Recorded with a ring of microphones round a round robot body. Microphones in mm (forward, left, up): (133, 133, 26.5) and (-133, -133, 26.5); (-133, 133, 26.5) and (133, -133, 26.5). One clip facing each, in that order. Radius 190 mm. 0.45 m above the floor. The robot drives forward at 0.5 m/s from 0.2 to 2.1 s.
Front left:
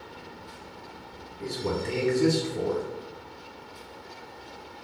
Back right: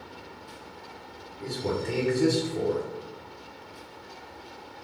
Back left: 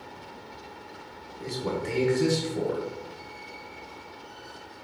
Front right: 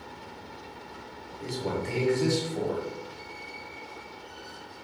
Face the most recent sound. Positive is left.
turn(degrees=125)